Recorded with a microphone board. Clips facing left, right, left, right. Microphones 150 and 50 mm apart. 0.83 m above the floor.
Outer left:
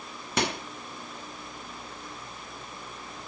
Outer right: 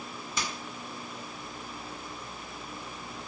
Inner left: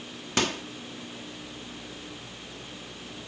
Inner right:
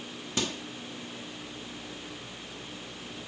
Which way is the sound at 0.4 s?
65° left (ahead or behind).